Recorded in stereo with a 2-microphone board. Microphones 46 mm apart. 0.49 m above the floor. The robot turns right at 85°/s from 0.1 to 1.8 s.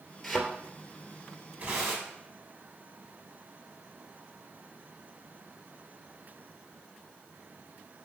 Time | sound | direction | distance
0.2 | a thud | 5° left (ahead or behind) | 2.5 m
1.6 | tearing paper | 30° right (ahead or behind) | 5 m